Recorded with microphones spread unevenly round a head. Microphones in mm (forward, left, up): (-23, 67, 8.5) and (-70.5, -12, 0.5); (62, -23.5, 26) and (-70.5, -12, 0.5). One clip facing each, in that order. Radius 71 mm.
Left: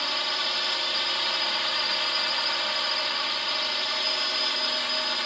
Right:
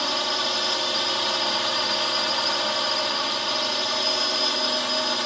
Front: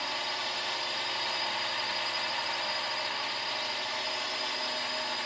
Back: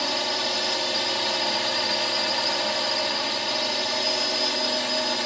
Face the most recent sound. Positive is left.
turn(degrees=-175)